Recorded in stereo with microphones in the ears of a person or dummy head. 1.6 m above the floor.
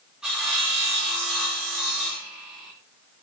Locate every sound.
0.2 s sawing: 10° right (ahead or behind), 2.5 m